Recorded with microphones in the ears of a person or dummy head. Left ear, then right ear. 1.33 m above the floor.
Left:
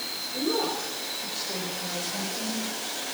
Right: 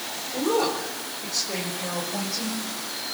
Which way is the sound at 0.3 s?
65° right (ahead or behind).